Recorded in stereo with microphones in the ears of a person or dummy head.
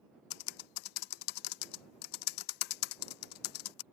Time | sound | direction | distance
0.3 | typing on a keyboard | 65° left (ahead or behind) | ?